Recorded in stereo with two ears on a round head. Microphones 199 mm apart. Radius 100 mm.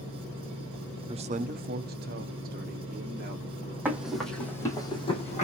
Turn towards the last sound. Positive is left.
turn(degrees=35)  # may be behind; listen again after turning